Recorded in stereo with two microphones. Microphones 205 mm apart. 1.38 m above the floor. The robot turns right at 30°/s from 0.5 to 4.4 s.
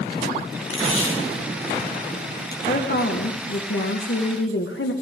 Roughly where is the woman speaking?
Ahead left.